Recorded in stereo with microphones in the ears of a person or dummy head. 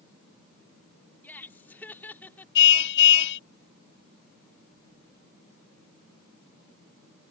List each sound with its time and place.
1.2 s laughter: 10° left (ahead or behind)
2.5 s a car horn: 65° left (ahead or behind)